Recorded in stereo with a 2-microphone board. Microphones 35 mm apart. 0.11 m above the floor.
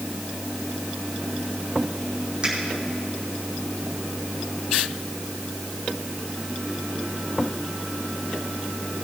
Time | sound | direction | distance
2.4 | a finger snap | 25° right (ahead or behind) | 5 m